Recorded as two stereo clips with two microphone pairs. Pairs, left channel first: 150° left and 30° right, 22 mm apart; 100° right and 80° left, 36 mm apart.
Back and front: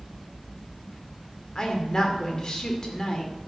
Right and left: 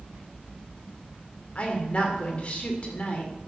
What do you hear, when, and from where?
1.6 s a woman speaking: 150° right, 2 m